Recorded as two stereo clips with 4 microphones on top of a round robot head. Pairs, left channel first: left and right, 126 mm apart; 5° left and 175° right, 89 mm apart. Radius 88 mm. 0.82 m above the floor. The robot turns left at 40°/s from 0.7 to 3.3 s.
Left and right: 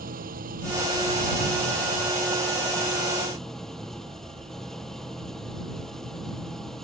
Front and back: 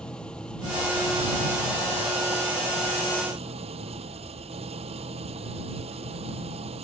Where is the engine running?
80° right; by 6.8 s straight behind.